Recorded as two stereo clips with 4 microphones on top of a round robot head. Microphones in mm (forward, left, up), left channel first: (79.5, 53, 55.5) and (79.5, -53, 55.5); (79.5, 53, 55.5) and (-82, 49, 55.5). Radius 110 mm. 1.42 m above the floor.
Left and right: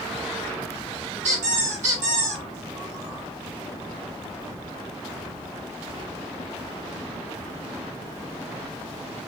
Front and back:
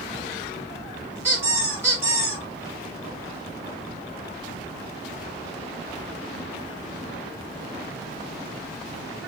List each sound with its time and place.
1.2 s a squeak: 100° right, 2.5 m